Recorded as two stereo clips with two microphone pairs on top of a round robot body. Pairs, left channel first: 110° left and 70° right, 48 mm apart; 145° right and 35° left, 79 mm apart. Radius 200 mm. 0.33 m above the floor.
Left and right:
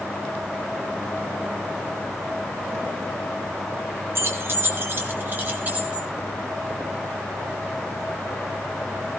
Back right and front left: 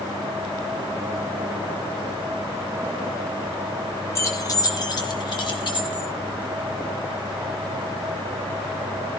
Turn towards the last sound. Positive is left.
turn(degrees=-130)